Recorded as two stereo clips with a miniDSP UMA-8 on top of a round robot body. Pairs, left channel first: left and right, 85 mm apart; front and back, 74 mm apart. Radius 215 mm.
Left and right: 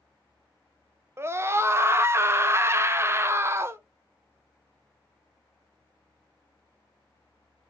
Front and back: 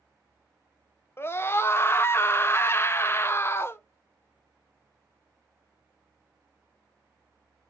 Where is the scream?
45° right, 0.7 m.